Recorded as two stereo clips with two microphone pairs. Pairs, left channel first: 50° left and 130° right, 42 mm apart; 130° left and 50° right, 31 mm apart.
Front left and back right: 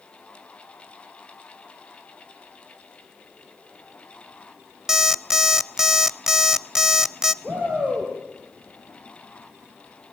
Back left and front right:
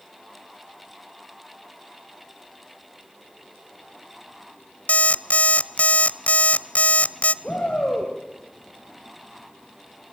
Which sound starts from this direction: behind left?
An alarm clock, at 4.9 s.